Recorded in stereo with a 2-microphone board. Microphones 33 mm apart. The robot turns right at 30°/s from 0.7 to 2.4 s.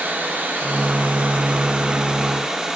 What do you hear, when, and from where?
0.0 s running water: 70° right, 1.9 m; by 2.8 s 15° right, 1.9 m